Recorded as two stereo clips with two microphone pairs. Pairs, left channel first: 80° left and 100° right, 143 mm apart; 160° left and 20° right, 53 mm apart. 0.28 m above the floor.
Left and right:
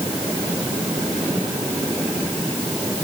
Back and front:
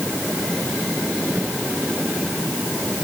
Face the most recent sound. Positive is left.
No sound to turn to.